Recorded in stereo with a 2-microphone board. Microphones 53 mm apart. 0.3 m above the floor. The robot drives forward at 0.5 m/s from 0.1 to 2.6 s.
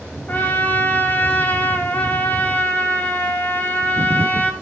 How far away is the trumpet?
About 1.5 m.